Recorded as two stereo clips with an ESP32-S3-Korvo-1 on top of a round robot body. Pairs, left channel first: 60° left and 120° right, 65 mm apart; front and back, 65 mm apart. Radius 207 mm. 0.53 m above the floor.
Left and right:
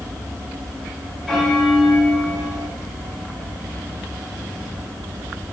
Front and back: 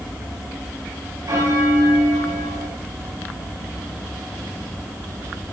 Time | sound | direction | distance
1.3 | a bell | 145° left | 5.5 m